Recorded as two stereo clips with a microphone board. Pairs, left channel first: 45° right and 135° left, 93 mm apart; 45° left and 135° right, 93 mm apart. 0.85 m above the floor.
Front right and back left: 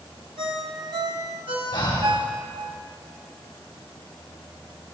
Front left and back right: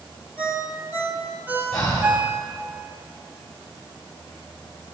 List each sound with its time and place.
0.4 s a ringtone: 155° left, 2.5 m
1.7 s breathing: 5° right, 2.5 m